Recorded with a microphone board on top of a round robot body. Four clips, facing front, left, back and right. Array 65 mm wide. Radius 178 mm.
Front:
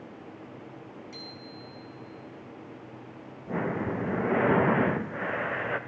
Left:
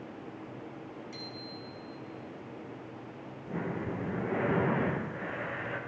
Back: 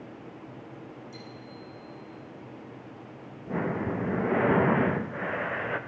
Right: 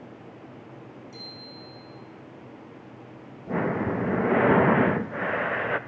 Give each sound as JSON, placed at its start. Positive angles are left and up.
{"t": 1.1, "sound": "a bicycle bell", "azimuth_deg": 35, "distance_m": 6.0}
{"t": 3.5, "sound": "breathing", "azimuth_deg": -85, "distance_m": 0.8}